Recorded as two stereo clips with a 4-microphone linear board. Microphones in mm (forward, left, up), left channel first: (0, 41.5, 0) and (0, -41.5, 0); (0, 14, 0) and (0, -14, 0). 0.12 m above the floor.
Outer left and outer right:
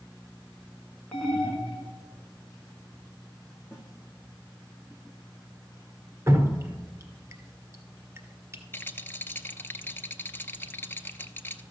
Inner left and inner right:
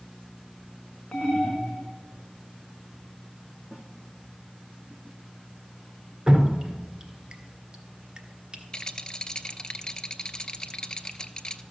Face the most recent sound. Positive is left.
turn(degrees=25)  # may be behind; listen again after turning